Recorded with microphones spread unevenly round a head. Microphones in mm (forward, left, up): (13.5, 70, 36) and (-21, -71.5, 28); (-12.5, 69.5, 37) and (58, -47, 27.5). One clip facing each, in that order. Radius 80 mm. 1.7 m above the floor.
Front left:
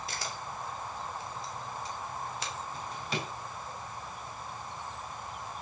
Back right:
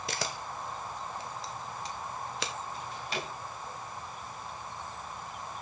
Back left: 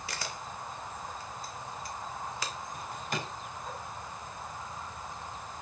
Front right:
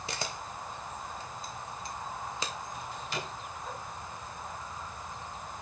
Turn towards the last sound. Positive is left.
turn(degrees=80)